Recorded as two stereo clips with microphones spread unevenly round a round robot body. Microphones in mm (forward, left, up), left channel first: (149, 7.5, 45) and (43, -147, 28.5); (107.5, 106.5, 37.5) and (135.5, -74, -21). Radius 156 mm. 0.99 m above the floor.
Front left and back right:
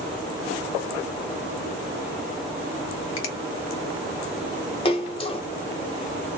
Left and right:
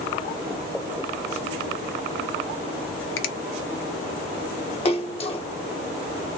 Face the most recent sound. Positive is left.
turn(degrees=40)